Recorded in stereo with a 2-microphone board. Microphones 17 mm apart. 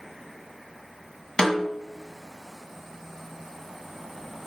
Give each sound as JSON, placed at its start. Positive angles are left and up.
{"t": 1.4, "sound": "a snare drum", "side_deg": 45, "distance_m": 1.7}